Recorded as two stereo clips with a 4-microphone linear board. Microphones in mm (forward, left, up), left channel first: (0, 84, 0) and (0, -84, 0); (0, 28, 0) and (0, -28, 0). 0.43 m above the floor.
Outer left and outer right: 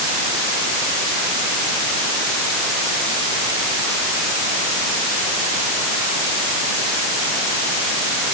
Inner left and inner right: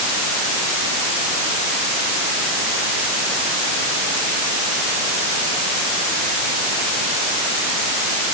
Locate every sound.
Only background noise.